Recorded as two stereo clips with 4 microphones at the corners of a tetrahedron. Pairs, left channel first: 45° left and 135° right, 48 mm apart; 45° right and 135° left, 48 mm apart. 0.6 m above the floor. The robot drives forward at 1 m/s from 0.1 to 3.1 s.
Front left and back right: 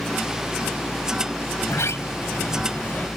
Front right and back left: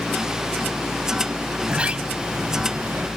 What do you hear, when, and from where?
1.6 s a sliding door: 65° left; by 3.1 s 90° left